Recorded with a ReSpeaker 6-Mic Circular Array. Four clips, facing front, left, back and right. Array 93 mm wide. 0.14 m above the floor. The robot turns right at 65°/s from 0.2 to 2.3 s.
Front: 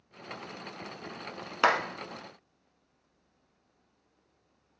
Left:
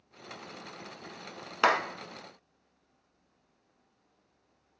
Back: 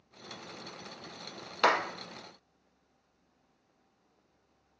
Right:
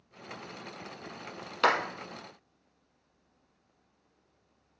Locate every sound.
1.6 s a clap: 40° left, 0.9 m; by 1.8 s 50° left, 0.9 m